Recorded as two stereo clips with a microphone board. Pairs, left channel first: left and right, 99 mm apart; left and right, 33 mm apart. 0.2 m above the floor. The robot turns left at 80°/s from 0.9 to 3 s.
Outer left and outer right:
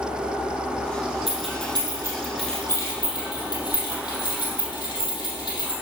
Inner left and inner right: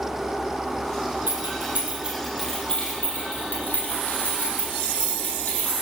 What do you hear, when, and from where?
1.3 s keys jangling: 80° right, 4.5 m; by 5.7 s 45° left (ahead or behind), 4.5 m